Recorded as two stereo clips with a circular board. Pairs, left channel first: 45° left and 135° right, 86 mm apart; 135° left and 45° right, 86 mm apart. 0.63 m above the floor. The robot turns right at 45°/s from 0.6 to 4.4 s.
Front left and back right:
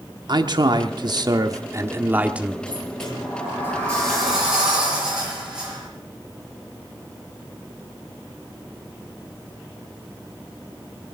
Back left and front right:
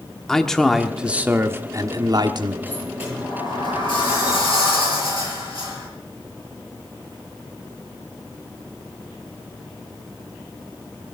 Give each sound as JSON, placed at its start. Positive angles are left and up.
{"t": 0.3, "sound": "a man speaking", "azimuth_deg": -140, "distance_m": 1.1}
{"t": 2.7, "sound": "a sliding door", "azimuth_deg": 65, "distance_m": 6.0}